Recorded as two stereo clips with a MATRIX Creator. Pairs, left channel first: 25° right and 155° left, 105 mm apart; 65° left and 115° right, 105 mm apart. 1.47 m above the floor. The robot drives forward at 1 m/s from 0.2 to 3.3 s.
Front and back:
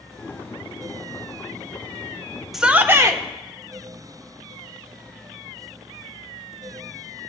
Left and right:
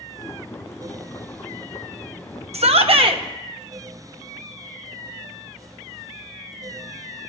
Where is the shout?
115° right, 0.7 m; by 3.2 s 150° right, 1.2 m.